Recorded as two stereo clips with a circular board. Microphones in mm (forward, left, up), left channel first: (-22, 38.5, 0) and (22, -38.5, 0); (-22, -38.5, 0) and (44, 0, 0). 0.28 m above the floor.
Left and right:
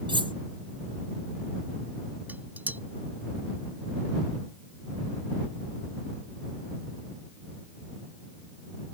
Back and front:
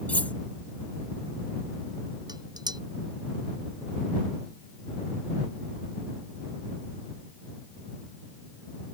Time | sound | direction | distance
0.1 | cutlery clinking | 80° right | ?
2.3 | dishes clattering | 10° left | ?